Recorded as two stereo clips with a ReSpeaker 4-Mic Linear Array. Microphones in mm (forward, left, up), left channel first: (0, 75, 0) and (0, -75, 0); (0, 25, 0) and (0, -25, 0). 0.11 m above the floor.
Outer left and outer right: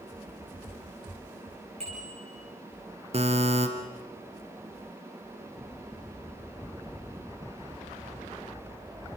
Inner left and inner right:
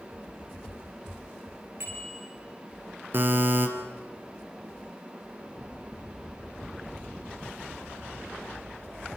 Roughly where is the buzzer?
Right.